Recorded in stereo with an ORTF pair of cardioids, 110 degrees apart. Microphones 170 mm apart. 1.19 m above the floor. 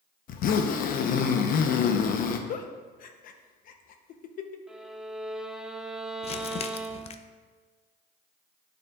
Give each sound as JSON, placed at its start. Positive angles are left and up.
{"t": 0.3, "sound": "a zipper", "azimuth_deg": 60, "distance_m": 0.7}
{"t": 2.5, "sound": "a giggle", "azimuth_deg": 60, "distance_m": 0.7}
{"t": 4.7, "sound": "a violin", "azimuth_deg": -5, "distance_m": 0.6}
{"t": 6.2, "sound": "crumpling", "azimuth_deg": 40, "distance_m": 0.5}